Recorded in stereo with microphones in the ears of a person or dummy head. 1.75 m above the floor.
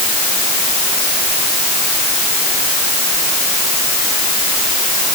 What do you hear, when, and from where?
Only background noise.